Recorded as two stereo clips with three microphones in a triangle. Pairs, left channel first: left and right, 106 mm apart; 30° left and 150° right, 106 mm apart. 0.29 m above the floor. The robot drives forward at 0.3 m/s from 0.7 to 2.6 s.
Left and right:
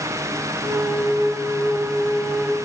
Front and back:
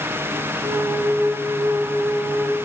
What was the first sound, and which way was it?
Only background noise.